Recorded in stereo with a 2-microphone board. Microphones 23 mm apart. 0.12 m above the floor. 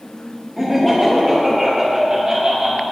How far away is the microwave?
I don't hear a microwave.